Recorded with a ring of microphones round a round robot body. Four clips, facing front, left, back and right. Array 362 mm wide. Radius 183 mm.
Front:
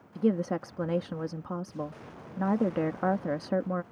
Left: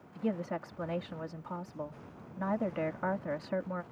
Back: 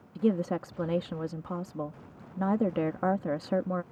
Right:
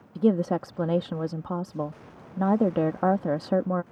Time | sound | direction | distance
0.1 | a woman speaking | 85° right | ?